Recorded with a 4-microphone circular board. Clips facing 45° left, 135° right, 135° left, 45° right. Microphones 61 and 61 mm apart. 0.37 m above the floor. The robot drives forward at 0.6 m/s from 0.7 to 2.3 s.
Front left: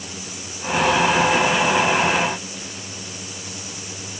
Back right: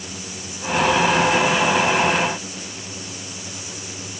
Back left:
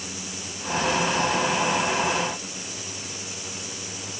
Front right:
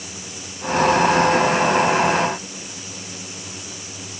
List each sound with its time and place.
Only background noise.